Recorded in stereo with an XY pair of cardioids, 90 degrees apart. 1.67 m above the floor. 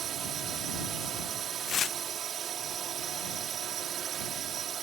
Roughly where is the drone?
Ahead right.